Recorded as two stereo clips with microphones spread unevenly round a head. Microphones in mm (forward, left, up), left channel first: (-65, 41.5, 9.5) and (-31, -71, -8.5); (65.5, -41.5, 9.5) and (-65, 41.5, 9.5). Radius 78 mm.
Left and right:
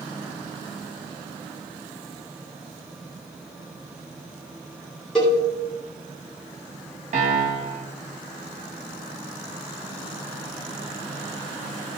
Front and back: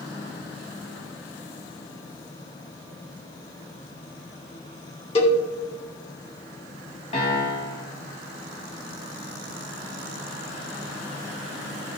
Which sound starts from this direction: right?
A piano, at 7.1 s.